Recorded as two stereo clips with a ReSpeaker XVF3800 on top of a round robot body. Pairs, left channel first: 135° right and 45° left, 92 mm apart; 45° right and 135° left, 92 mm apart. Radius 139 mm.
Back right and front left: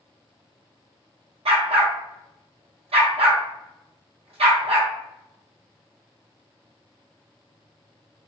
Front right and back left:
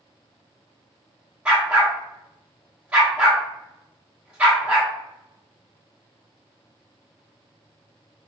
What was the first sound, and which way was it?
A dog barking, 55° left.